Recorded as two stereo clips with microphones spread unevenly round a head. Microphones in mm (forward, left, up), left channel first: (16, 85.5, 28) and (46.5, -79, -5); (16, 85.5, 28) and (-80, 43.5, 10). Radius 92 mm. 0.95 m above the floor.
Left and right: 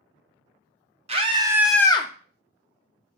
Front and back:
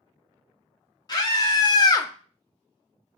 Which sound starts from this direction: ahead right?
A scream, at 1.1 s.